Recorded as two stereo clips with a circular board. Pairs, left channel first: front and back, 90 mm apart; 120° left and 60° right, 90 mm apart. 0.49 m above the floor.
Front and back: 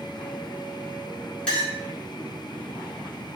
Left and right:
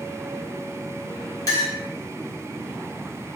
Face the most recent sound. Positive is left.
turn(degrees=80)